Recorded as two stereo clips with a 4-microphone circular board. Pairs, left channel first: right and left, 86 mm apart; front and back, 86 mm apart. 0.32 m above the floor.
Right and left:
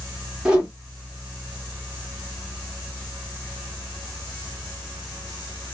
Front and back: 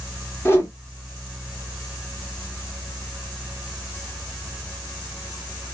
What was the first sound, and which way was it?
A whoosh, 25° left.